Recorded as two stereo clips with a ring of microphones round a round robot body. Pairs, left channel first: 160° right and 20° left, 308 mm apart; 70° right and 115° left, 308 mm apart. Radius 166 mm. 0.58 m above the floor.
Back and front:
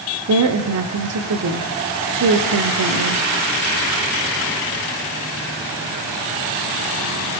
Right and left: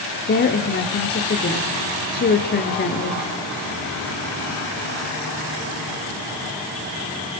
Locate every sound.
0.3 s a woman speaking: 10° right, 1.8 m